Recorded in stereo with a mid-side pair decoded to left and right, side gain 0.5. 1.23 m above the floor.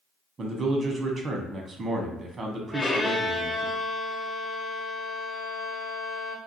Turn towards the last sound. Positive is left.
turn(degrees=25)